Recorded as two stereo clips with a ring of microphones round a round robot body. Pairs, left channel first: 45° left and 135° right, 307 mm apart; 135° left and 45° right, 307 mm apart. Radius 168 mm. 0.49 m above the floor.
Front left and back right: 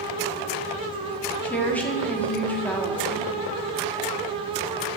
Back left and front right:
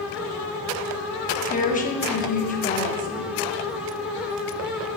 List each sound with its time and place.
1.4 s a woman speaking: 125° left, 1.3 m